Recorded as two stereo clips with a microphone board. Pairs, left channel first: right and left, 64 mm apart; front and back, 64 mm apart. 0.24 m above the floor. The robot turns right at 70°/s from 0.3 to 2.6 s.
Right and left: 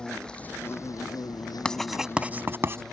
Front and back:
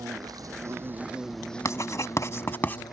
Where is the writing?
15° right; by 2.8 s 50° left.